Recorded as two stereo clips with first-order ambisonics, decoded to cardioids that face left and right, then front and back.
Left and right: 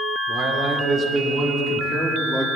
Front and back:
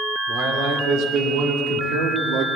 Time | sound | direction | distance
0.3 | a man speaking | 140° right | 2 m